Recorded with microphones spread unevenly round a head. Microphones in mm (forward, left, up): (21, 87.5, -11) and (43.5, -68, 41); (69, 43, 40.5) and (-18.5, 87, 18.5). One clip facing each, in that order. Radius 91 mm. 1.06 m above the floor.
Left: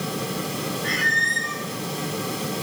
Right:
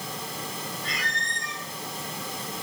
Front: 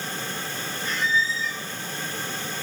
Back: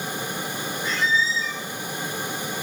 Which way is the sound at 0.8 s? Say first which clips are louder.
Left 7 dB, back 1 dB; 155° left.